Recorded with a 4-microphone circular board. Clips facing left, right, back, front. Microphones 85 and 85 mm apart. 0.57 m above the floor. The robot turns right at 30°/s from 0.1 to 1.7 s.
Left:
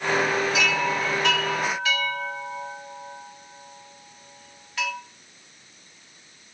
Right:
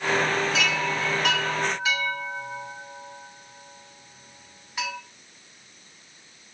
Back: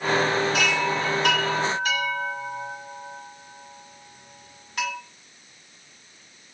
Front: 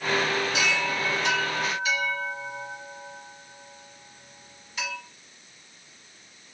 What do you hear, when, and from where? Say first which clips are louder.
0.5 s a chime: left 2 dB, back 3 dB; 165° left, 2 m; by 4.9 s 160° right, 2 m